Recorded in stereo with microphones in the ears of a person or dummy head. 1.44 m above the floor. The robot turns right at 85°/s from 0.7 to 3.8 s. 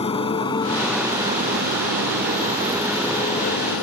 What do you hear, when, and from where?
0.0 s a motorcycle: 30° left (ahead or behind); by 3.8 s 75° left (ahead or behind)